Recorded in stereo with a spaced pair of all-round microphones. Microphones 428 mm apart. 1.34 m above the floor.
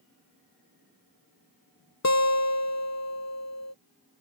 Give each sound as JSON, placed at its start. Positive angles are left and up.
{"t": 2.0, "sound": "a guitar", "side_deg": 40}